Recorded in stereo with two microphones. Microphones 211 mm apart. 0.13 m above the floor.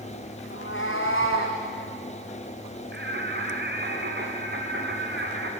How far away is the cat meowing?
About 4.5 m.